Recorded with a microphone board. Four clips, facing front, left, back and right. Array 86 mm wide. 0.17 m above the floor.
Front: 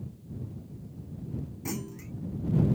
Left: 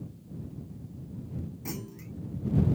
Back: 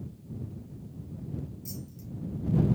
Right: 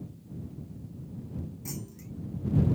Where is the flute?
No flute in this recording.